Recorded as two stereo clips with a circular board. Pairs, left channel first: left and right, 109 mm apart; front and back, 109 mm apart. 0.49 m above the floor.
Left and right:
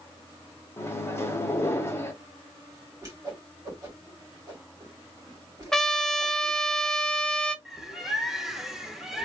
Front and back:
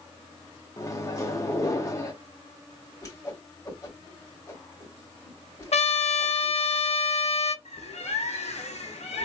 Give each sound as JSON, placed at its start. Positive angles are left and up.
{"t": 0.8, "sound": "a microwave", "azimuth_deg": 40, "distance_m": 0.9}
{"t": 3.0, "sound": "a whoosh", "azimuth_deg": -45, "distance_m": 1.9}
{"t": 5.7, "sound": "a trumpet", "azimuth_deg": 5, "distance_m": 0.5}
{"t": 7.7, "sound": "a bird", "azimuth_deg": -5, "distance_m": 0.9}